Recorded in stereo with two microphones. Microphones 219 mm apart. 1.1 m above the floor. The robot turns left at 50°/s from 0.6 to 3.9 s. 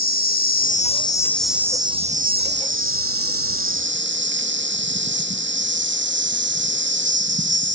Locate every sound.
0.0 s an insect: 45° left, 0.9 m; by 7.8 s 120° right, 0.9 m